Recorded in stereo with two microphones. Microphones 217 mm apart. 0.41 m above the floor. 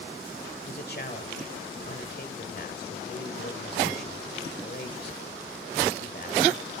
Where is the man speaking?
50° left (ahead or behind), 1.8 m.